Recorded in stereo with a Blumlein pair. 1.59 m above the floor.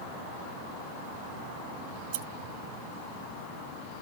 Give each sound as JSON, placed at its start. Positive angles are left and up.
{"t": 1.9, "sound": "scissors", "azimuth_deg": -50, "distance_m": 2.0}